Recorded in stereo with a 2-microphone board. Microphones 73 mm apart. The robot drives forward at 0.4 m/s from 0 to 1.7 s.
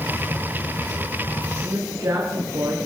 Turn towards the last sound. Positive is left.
turn(degrees=-55)  # may be behind; listen again after turning